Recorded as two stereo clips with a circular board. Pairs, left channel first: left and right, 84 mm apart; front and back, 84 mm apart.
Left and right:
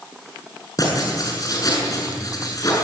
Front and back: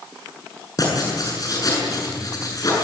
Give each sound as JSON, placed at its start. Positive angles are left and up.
{"t": 0.8, "sound": "writing", "azimuth_deg": 45, "distance_m": 7.5}